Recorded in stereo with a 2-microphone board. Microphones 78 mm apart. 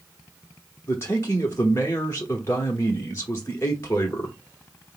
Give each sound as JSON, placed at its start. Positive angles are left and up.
{"t": 0.9, "sound": "a man speaking", "side_deg": 35, "distance_m": 0.9}